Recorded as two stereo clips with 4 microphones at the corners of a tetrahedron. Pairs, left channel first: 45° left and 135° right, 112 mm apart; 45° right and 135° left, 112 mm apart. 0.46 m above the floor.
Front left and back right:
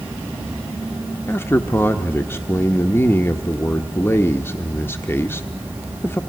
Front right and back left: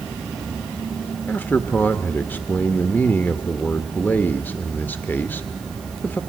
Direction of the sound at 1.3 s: 5° left.